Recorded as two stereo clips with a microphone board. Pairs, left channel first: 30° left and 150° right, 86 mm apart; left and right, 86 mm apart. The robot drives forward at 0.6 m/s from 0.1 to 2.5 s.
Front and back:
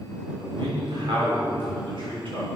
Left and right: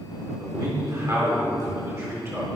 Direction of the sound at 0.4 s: 140° right.